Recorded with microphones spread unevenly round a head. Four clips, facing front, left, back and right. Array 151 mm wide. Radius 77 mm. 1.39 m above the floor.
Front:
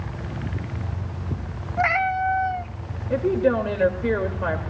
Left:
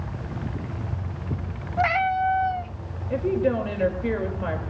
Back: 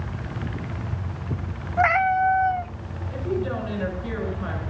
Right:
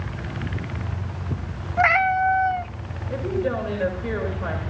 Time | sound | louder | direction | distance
1.8 | a cat meowing | right 3 dB, back 3 dB | 125° right | 0.8 m
3.1 | a woman speaking | left 2 dB, front 7 dB | 20° left | 3.5 m